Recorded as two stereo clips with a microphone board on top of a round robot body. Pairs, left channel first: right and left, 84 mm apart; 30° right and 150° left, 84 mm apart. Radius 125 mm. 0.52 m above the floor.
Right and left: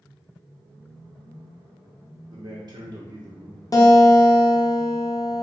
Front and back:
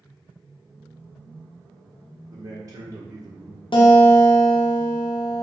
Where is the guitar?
45° right, 0.7 m.